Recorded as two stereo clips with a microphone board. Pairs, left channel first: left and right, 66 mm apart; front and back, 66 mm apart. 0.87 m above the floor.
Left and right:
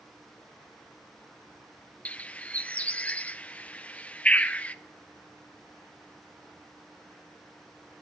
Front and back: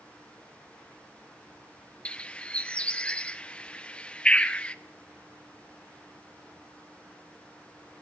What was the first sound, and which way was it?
A bird, 45° left.